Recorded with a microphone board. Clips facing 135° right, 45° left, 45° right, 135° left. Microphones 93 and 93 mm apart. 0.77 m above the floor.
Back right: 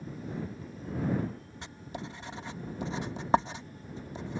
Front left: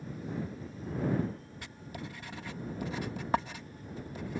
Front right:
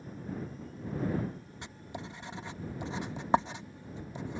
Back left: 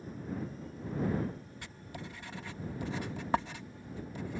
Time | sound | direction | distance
1.6 | writing | 90° right | ?